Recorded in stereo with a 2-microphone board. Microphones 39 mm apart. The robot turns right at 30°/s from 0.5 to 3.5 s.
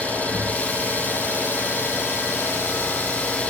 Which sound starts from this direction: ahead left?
An engine running, at 0.0 s.